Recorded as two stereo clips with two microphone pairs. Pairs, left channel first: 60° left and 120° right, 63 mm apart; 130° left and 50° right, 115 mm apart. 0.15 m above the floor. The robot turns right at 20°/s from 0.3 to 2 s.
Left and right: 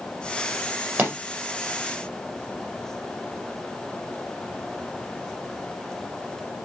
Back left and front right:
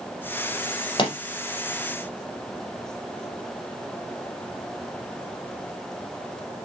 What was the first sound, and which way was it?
A pop, straight behind.